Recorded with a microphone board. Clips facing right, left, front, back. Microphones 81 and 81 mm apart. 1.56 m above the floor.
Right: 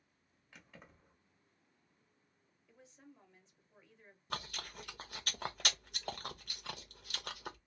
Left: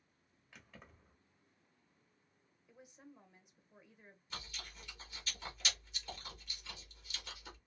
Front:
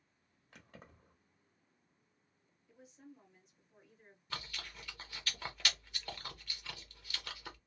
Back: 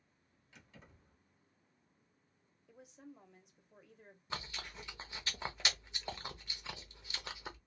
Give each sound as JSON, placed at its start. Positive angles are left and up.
{"t": 0.5, "sound": "keys jangling", "azimuth_deg": -5, "distance_m": 1.0}
{"t": 2.7, "sound": "a woman speaking", "azimuth_deg": 165, "distance_m": 1.0}
{"t": 4.3, "sound": "chewing", "azimuth_deg": -115, "distance_m": 0.6}